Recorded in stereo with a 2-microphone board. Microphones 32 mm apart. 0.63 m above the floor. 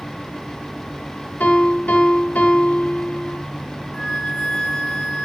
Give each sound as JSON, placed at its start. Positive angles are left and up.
{"t": 1.4, "sound": "a piano", "side_deg": 75, "distance_m": 1.1}
{"t": 3.9, "sound": "a flute", "side_deg": 50, "distance_m": 1.1}